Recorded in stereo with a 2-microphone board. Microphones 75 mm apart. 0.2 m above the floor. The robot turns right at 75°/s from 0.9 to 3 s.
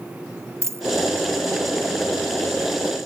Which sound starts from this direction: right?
A dropped coin, at 0.6 s.